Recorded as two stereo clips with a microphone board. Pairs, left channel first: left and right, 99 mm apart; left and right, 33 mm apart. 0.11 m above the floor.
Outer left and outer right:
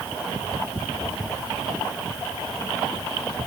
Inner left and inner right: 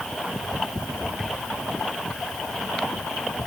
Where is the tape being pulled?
No tape being pulled in this recording.